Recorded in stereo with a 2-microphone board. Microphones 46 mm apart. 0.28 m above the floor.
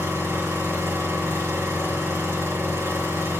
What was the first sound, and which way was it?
An engine running, 70° right (ahead or behind).